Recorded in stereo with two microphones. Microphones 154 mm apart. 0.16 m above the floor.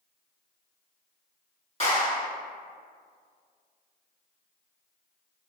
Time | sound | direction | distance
1.8 | a clap | 40° left (ahead or behind) | 1.7 m